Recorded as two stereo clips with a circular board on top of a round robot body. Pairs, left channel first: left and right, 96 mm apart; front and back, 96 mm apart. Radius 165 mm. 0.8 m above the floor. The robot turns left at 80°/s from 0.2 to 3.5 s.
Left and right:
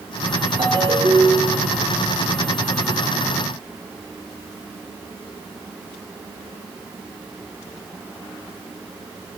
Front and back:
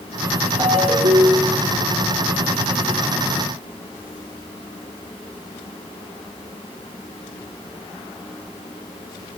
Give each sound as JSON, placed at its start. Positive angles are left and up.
{"t": 0.6, "sound": "a ringtone", "azimuth_deg": -130, "distance_m": 4.0}